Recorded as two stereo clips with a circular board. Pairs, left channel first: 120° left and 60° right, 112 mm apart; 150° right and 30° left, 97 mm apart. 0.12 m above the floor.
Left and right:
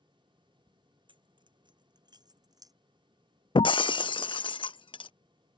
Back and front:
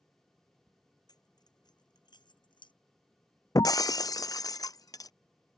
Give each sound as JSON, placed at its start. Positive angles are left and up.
{"t": 1.1, "sound": "keys jangling", "azimuth_deg": -100}
{"t": 3.5, "sound": "breaking glass", "azimuth_deg": 160}